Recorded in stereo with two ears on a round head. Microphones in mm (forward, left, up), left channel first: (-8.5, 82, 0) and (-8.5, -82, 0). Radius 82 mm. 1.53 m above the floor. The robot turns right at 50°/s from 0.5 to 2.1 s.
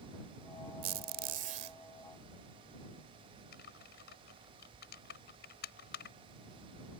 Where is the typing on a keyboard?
65° left (ahead or behind).